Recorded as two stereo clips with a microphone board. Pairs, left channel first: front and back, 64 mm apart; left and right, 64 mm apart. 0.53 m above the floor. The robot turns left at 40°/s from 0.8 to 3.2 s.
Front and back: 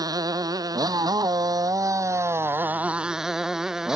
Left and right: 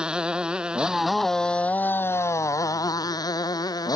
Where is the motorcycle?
165° right; by 4.0 s 100° left.